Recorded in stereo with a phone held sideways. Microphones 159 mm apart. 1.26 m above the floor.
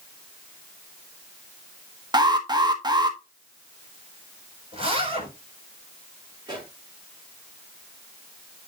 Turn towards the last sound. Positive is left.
turn(degrees=-25)  # may be behind; listen again after turning